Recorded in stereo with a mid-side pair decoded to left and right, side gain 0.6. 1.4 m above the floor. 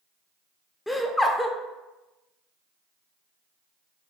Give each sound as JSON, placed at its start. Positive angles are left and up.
{"t": 0.9, "sound": "laughter", "azimuth_deg": 10, "distance_m": 0.5}